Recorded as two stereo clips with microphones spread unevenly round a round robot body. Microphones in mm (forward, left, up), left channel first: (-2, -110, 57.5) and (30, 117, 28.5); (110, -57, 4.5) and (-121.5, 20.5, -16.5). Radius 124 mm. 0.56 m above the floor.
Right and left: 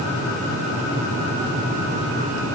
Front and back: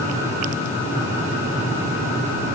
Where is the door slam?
No door slam in this recording.